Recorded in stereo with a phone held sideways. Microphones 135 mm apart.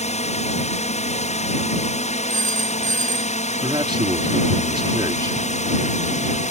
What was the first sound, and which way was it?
A drone, 55° left (ahead or behind).